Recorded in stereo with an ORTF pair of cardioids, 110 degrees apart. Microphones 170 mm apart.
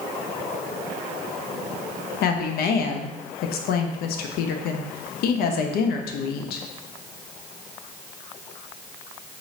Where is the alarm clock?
No alarm clock in this recording.